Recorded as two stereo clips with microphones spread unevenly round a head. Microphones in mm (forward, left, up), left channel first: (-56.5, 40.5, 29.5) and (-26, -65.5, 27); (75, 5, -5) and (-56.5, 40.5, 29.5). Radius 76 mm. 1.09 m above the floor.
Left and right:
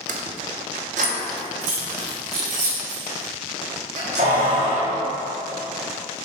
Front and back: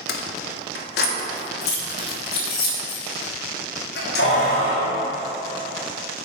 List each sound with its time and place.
0.1 s keys jangling: 45° right, 0.7 m; by 5.0 s 30° right, 3.5 m